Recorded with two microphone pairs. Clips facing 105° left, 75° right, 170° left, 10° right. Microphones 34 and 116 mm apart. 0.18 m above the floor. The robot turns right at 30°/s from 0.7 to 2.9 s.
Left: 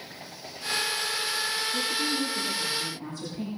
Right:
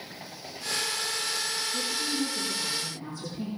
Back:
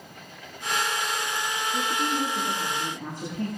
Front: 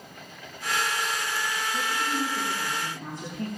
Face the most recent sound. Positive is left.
turn(degrees=160)